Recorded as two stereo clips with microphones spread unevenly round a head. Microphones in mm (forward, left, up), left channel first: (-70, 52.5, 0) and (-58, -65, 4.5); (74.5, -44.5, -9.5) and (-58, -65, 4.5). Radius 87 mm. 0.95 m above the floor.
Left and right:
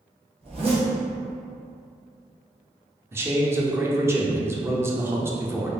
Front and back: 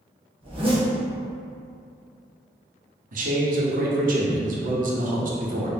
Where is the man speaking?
155° right, 0.8 m.